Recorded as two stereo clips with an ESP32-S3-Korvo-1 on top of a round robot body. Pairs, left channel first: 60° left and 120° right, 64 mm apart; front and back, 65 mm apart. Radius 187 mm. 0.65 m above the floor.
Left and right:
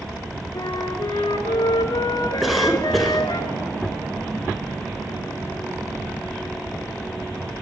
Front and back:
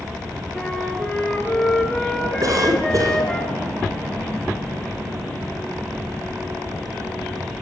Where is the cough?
150° left, 4 m.